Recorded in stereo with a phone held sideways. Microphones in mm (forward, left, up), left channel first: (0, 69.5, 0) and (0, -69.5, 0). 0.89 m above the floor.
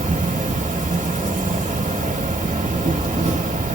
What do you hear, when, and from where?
0.0 s an insect: 70° right (ahead or behind), 1.2 m